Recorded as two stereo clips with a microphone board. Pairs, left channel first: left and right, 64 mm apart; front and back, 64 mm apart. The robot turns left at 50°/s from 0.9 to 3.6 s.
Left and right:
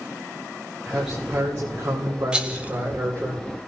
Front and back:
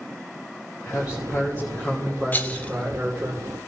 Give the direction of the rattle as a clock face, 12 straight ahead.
1 o'clock.